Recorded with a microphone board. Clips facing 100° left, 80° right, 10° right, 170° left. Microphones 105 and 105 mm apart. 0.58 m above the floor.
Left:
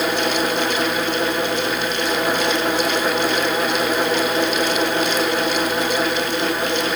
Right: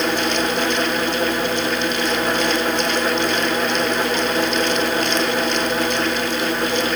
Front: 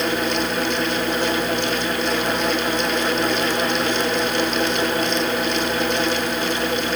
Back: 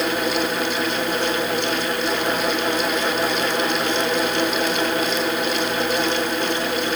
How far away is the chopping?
No chopping in this recording.